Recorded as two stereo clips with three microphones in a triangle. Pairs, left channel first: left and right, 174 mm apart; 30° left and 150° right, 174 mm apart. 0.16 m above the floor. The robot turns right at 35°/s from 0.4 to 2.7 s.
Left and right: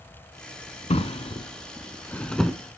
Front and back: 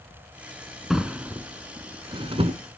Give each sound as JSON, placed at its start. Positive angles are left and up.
{"t": 0.9, "sound": "a drawer", "azimuth_deg": 125, "distance_m": 0.7}